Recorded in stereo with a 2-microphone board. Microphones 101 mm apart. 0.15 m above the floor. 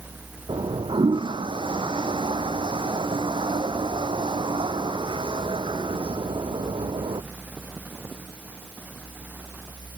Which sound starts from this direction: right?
A toilet flushing, at 0.5 s.